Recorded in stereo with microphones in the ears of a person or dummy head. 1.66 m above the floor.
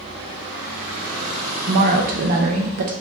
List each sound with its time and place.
1.7 s a woman speaking: 30° right (ahead or behind), 0.5 m